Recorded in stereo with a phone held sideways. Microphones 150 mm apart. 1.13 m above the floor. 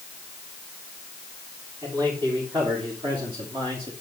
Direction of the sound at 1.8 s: 35° right (ahead or behind).